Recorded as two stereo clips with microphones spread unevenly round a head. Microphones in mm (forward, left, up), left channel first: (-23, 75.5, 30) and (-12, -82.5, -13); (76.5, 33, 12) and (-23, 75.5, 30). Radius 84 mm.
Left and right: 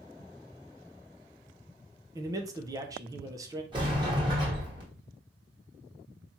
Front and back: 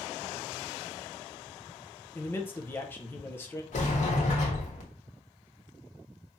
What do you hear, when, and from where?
2.1 s a man speaking: 65° right, 0.6 m
3.7 s a sliding door: 20° right, 1.2 m